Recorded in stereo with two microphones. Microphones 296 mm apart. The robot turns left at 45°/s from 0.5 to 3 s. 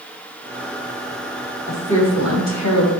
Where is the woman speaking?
140° left, 4 m; by 2.9 s 85° left, 4 m.